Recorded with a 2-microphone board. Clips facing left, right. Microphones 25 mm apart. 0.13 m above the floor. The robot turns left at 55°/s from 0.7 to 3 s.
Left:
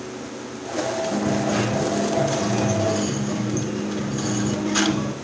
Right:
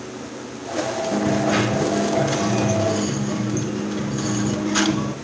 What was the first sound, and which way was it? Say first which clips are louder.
A dropped coin: right 4 dB; 70° right.